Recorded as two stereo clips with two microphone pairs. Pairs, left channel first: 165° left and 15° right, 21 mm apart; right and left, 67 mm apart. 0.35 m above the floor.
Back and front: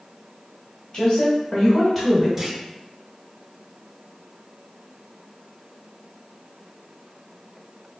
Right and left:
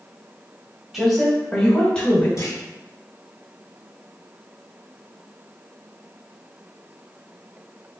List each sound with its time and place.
0.9 s a woman speaking: 175° left, 1.7 m; by 2.3 s 100° right, 1.3 m
2.4 s a clunk: 85° right, 0.9 m